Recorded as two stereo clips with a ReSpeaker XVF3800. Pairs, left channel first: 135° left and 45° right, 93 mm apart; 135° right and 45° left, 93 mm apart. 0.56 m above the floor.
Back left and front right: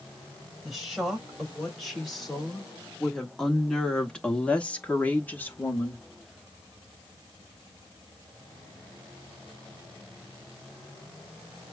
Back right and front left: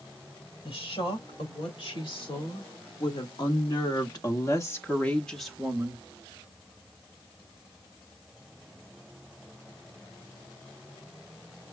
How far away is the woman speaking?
About 3 m.